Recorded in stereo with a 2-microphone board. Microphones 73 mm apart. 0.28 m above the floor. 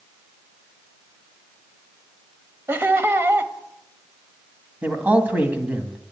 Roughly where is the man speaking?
Right.